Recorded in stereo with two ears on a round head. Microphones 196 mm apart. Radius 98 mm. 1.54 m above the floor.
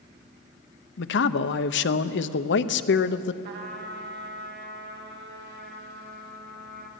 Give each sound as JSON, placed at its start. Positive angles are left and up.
{"t": 1.0, "sound": "a man speaking", "side_deg": 55, "distance_m": 0.7}
{"t": 3.4, "sound": "a trumpet", "side_deg": -50, "distance_m": 2.0}